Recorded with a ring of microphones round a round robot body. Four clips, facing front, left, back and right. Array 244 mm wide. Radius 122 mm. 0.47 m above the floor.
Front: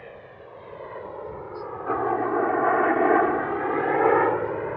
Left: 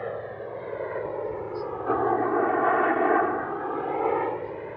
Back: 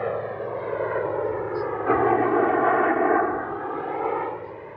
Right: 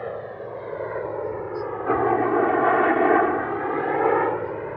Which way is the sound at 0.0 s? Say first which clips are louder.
Right 1 dB, back 16 dB; straight behind.